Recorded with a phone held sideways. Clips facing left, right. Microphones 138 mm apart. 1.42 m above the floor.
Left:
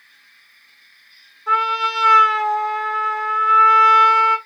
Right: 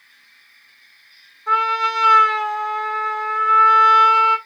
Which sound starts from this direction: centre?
A trumpet, at 1.5 s.